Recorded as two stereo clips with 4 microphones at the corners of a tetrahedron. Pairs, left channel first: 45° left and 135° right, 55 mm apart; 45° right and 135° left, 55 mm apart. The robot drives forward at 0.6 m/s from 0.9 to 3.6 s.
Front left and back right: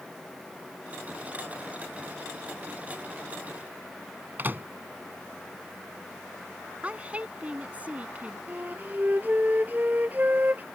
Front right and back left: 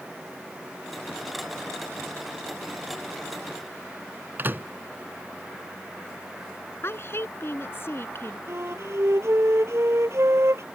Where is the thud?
I don't hear a thud.